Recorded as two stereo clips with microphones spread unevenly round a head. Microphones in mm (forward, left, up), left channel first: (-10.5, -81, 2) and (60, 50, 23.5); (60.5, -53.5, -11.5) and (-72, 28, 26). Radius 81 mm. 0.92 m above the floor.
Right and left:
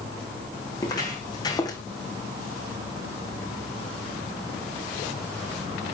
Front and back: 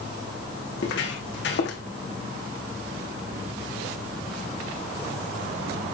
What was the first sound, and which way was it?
Footsteps, 50° right.